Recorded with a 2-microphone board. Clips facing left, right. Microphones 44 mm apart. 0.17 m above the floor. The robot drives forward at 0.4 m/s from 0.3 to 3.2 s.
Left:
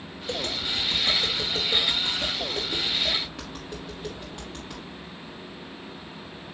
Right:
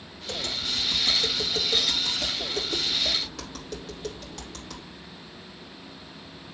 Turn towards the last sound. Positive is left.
turn(degrees=20)  # may be behind; listen again after turning